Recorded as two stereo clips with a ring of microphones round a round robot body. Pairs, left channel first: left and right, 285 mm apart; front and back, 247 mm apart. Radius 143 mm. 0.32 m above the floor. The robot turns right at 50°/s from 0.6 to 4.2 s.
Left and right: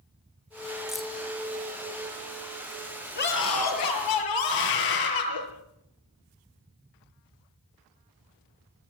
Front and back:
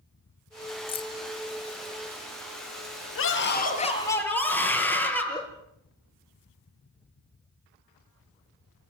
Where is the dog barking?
I don't hear a dog barking.